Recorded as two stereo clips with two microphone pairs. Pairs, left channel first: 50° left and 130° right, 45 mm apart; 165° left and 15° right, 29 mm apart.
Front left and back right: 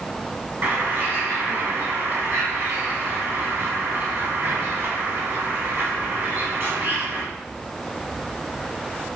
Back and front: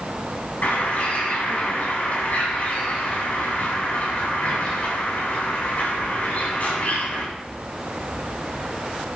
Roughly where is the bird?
Behind right.